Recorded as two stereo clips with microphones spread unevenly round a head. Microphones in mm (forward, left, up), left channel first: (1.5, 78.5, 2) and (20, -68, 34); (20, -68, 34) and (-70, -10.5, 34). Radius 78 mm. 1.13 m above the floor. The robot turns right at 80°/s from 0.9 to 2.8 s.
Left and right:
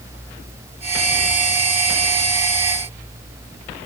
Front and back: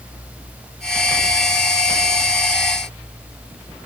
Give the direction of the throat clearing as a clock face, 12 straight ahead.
No throat clearing in this recording.